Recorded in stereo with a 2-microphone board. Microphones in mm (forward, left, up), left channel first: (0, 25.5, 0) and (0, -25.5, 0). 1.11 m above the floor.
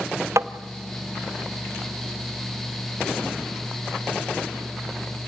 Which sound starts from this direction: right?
Tapping, at 0.4 s.